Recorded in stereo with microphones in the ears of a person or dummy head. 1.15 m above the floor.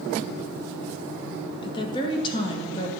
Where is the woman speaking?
30° left (ahead or behind), 1.6 m.